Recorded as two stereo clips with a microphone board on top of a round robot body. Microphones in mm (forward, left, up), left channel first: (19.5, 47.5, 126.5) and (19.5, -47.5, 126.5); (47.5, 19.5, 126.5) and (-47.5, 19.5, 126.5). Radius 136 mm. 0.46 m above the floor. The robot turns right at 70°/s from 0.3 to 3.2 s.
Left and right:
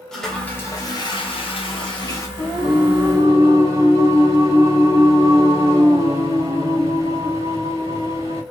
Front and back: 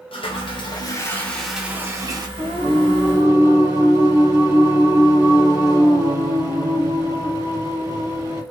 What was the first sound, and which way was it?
A toilet flushing, 5° left.